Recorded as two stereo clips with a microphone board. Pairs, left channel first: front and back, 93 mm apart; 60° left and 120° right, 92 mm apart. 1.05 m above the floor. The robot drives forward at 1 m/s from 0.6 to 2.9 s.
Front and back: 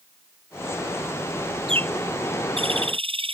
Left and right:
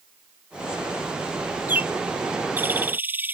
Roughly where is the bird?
Behind.